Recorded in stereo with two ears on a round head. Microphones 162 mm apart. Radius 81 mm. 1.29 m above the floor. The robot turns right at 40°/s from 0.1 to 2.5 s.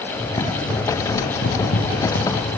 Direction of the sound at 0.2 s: 25° left.